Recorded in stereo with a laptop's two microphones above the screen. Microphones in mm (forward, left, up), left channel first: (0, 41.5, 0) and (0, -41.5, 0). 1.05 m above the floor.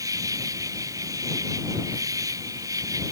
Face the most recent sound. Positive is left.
turn(degrees=-45)  # may be behind; listen again after turning